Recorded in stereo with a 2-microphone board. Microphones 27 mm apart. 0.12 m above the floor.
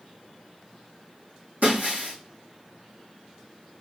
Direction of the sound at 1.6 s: 80° right.